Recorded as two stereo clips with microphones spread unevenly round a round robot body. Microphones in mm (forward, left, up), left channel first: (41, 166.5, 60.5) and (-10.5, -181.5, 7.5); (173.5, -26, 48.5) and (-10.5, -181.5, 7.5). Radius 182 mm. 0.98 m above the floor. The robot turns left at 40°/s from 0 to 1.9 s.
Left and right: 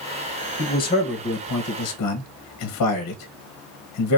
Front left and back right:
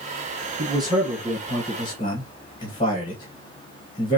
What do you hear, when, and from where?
0.6 s a man speaking: 170° left, 1.2 m; by 4.2 s 115° left, 1.2 m